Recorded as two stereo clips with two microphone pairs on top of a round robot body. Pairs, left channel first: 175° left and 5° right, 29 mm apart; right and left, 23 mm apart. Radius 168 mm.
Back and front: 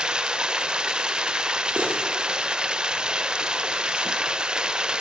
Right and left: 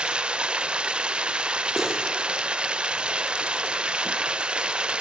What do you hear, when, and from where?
0.0 s running water: 60° left, 1.4 m
1.8 s cutlery clinking: 15° left, 9 m